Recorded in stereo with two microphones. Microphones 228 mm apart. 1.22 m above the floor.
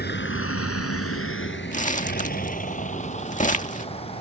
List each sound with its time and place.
0.0 s a vehicle: 45° left (ahead or behind); by 4.2 s 25° left (ahead or behind)
1.7 s crumpling: 35° left (ahead or behind)